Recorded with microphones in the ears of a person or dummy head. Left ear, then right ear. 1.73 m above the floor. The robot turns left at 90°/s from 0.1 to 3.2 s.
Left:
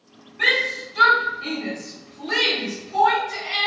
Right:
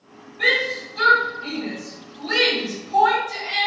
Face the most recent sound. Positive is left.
turn(degrees=-70)  # may be behind; listen again after turning